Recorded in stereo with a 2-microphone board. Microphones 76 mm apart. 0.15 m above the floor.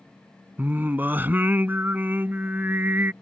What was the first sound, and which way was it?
Singing, 25° right (ahead or behind).